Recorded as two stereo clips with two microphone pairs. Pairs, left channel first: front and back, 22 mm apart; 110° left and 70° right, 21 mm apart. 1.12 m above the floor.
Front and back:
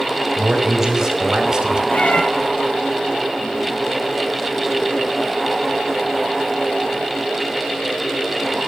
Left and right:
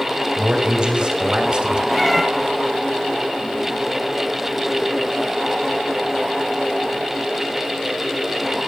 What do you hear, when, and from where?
0.4 s a man speaking: 110° right, 5 m; by 1.8 s 120° right, 4 m
1.9 s a cat meowing: 20° left, 2 m